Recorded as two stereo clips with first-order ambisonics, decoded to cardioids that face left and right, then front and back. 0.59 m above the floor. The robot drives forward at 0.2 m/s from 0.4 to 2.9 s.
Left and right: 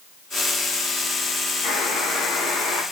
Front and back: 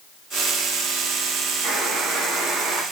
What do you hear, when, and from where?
1.6 s a buzzer: 110° left, 1.1 m; by 2.8 s 120° left, 1.2 m